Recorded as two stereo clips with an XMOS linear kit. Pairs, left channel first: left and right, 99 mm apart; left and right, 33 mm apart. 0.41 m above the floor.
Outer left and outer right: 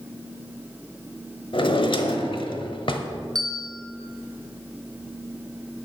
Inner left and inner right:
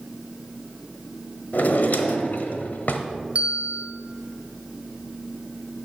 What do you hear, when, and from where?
1.5 s a drawer: 60° left (ahead or behind), 1.0 m
3.4 s a bell: 40° right (ahead or behind), 1.9 m